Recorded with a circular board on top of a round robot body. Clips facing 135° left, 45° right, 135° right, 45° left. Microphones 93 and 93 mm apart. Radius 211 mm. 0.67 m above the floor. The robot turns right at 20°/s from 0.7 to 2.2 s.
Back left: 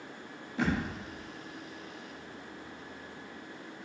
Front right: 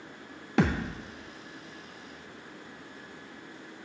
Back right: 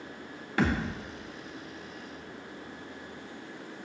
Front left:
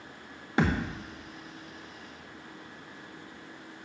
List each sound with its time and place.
0.6 s a thud: 25° right, 0.7 m; by 1.0 s 20° right, 0.7 m